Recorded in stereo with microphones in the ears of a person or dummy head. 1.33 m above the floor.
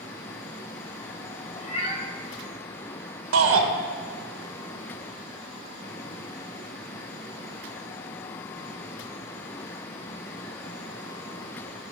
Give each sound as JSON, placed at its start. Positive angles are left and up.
{"t": 1.6, "sound": "a cat meowing", "side_deg": 35, "distance_m": 3.0}
{"t": 3.3, "sound": "a shout", "side_deg": -65, "distance_m": 1.4}